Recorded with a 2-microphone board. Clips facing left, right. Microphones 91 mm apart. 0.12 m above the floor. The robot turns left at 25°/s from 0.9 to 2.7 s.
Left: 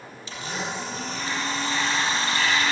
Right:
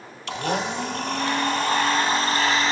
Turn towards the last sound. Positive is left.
turn(degrees=-140)